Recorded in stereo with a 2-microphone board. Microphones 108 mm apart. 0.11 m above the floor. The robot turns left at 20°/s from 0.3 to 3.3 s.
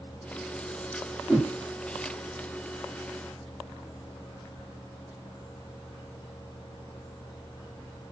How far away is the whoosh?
About 8.5 m.